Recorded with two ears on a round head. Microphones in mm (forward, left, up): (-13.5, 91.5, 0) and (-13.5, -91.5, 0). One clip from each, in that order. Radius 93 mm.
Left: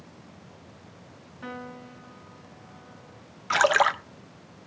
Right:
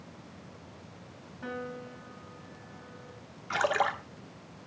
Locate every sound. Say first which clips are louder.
1.4 s a piano: right 1 dB; 20° left (ahead or behind), 1.0 m
3.5 s a splash: left 7 dB; 45° left (ahead or behind), 0.6 m